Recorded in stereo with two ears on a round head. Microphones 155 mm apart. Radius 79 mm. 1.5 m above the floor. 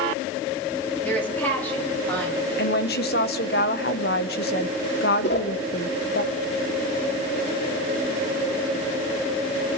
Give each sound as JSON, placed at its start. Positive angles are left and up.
{"t": 1.0, "sound": "a woman speaking", "side_deg": 10, "distance_m": 3.5}
{"t": 2.6, "sound": "a woman speaking", "side_deg": 60, "distance_m": 1.1}
{"t": 5.2, "sound": "a whoosh", "side_deg": 75, "distance_m": 2.5}